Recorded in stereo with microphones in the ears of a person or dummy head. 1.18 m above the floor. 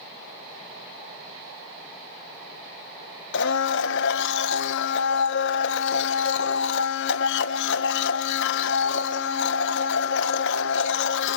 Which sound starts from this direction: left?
A blender, at 3.3 s.